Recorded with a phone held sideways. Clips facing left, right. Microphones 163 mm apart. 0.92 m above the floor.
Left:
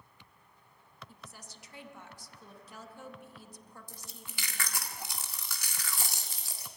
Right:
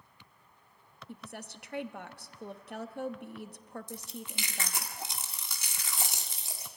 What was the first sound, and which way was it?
A woman speaking, 70° right (ahead or behind).